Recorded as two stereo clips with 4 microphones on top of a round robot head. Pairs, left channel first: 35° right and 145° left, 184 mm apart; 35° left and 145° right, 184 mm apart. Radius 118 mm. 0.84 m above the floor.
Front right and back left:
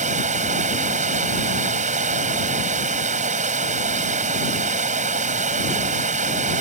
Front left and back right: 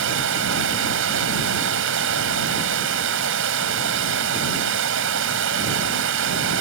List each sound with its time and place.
0.0 s running water: 160° right